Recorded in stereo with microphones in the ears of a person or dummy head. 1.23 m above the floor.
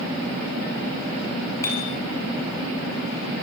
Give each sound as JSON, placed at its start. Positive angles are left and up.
{"t": 1.6, "sound": "a bicycle bell", "side_deg": 15, "distance_m": 9.0}